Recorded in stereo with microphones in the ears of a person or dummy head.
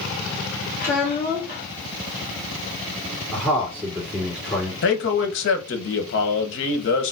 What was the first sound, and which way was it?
A child speaking, 40° left (ahead or behind).